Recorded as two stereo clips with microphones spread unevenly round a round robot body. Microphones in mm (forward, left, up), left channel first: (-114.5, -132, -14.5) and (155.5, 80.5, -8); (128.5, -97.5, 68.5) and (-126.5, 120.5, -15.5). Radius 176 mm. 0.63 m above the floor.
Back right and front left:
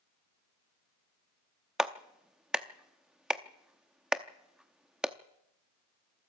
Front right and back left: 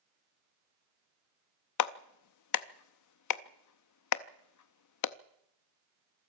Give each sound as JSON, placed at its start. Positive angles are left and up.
{"t": 1.8, "sound": "a clap", "azimuth_deg": -50, "distance_m": 0.7}